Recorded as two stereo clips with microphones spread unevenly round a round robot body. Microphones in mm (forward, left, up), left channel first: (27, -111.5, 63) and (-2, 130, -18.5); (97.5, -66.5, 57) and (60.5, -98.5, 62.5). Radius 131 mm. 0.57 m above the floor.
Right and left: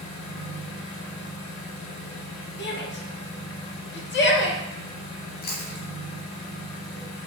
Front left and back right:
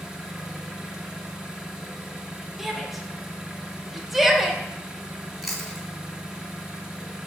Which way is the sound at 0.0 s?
60° right.